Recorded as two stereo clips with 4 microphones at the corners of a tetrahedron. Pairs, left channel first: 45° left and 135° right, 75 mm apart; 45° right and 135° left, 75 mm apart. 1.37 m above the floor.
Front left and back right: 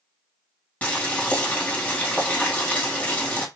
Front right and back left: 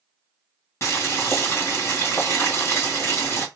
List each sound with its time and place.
0.8 s boiling: 15° right, 1.5 m